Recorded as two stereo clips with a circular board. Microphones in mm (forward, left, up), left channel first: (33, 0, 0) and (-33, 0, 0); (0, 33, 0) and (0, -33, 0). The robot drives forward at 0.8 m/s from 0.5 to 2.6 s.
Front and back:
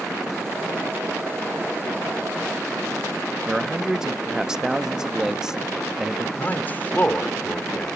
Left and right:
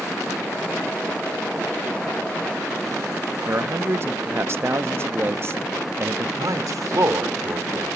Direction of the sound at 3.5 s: 105° right.